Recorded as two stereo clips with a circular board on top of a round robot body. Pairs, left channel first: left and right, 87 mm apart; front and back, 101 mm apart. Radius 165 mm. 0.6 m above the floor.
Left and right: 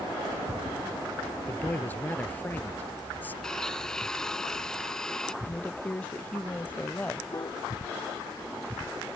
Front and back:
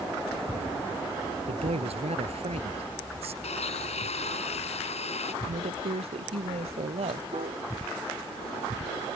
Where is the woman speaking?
165° left.